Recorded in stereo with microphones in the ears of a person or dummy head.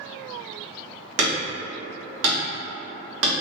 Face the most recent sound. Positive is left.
turn(degrees=-70)  # may be behind; listen again after turning